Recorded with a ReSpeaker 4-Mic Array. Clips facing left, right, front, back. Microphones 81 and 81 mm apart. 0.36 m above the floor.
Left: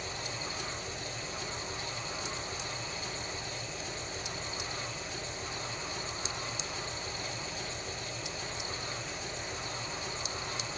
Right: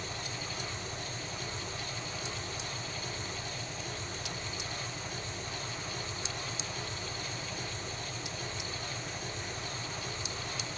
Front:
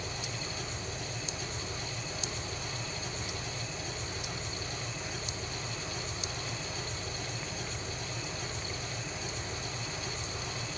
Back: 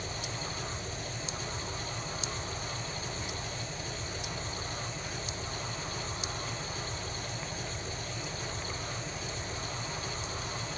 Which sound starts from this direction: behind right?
An engine running, at 0.0 s.